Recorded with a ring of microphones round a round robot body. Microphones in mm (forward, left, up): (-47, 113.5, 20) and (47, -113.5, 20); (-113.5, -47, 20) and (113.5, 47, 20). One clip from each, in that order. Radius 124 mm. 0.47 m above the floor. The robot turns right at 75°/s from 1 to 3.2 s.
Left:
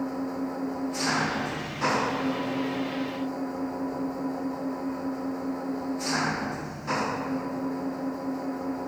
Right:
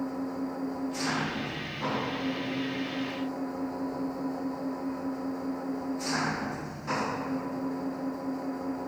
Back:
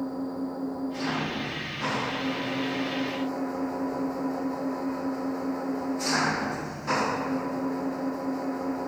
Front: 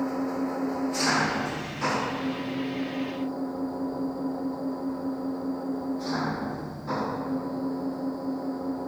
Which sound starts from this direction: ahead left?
An engine running, at 0.0 s.